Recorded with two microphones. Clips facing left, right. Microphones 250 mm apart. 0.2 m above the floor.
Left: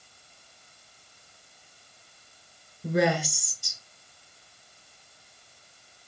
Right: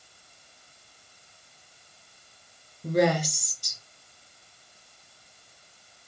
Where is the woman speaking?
10° left (ahead or behind), 2.5 m.